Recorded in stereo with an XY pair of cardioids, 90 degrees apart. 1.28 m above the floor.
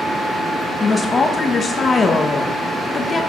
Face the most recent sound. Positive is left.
turn(degrees=35)